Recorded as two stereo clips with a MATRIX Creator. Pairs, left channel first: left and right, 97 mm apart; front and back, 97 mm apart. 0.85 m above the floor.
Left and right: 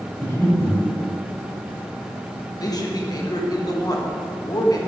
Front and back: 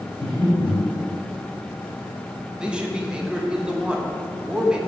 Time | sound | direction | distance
0.2 | breathing | 155° left | 3 m
2.6 | a man speaking | 105° left | 1.1 m